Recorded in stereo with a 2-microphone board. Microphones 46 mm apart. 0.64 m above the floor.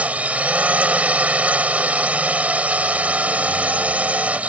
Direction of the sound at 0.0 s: 35° right (ahead or behind).